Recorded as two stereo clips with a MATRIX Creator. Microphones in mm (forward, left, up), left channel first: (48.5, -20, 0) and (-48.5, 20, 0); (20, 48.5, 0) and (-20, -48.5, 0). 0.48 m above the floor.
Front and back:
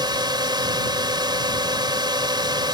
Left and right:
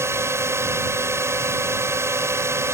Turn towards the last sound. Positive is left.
turn(degrees=-170)